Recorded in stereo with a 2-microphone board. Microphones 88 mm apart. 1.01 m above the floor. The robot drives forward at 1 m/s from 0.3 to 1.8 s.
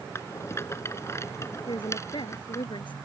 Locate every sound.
0.1 s a rattle: 30° left (ahead or behind); by 2.7 s 35° left (ahead or behind)
1.7 s a woman speaking: 65° left (ahead or behind)